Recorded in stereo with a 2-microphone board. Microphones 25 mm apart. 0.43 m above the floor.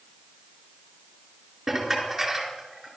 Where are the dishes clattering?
10° right (ahead or behind), 4.5 m.